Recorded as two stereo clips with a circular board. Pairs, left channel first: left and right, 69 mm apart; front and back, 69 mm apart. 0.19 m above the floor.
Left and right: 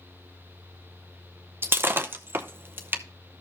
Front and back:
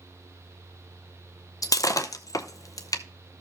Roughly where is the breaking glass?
Ahead right.